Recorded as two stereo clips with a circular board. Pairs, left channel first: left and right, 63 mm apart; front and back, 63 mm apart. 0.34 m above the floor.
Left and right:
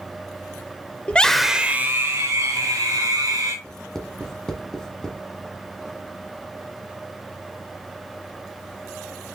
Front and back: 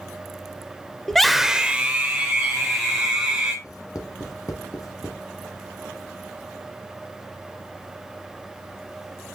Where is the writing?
10° left, 1.7 m.